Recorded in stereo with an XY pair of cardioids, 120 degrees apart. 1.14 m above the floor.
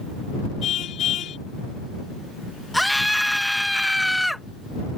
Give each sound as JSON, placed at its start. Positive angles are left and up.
{"t": 0.6, "sound": "a car horn", "azimuth_deg": 60}
{"t": 2.7, "sound": "a scream", "azimuth_deg": 0}